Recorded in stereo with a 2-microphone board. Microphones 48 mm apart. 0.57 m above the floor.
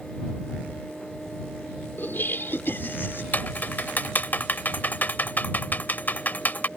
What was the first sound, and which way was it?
Laughter, 45° left (ahead or behind).